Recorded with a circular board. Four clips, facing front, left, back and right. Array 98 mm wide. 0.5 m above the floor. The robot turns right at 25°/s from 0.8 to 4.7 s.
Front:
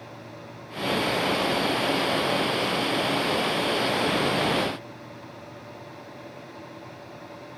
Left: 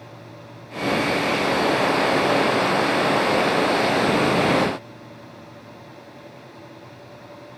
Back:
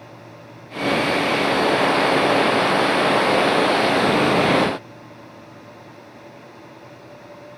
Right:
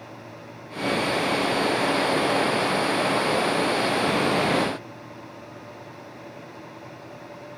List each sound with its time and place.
Only background noise.